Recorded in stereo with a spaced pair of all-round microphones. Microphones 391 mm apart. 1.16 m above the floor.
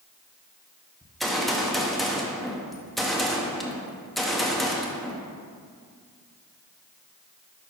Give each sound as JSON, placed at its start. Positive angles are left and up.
{"t": 1.0, "sound": "a gunshot", "side_deg": 0, "distance_m": 1.0}